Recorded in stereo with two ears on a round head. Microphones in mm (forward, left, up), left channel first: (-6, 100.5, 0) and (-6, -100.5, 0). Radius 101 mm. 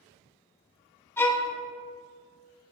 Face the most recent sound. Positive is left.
turn(degrees=10)  # may be behind; listen again after turning